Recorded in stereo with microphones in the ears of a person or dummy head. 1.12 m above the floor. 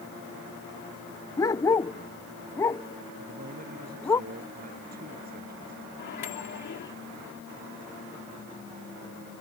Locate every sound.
1.4 s a dog barking: 20° left (ahead or behind); by 4.2 s 15° left (ahead or behind)
3.2 s a man speaking: 45° right (ahead or behind)
6.0 s a microwave: 60° left (ahead or behind)